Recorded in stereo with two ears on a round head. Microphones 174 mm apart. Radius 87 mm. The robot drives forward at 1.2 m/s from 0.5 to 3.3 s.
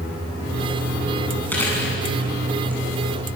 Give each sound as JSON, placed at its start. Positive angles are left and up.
{"t": 1.5, "sound": "chewing", "side_deg": 10, "distance_m": 8.0}